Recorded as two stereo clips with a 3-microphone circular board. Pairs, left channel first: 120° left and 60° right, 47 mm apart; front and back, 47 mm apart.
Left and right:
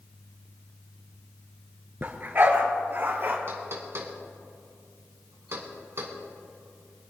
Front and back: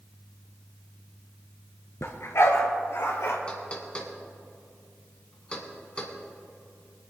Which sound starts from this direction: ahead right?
Knocking, at 3.5 s.